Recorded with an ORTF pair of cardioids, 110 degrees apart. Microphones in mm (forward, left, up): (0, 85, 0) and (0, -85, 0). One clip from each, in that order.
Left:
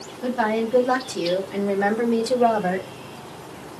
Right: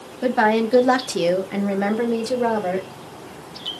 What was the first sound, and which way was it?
A woman speaking, 70° right.